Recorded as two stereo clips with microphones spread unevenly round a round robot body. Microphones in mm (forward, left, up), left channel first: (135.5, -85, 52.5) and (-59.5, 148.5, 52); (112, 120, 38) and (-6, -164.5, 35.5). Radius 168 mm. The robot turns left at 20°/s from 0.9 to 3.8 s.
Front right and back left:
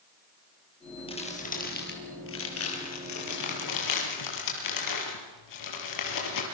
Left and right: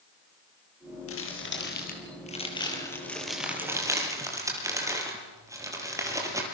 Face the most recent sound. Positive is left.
turn(degrees=-30)